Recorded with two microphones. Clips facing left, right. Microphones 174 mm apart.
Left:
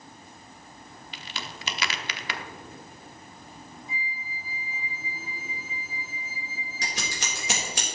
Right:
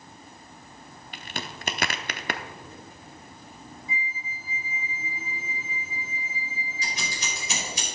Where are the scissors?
75° left (ahead or behind), 3.5 m.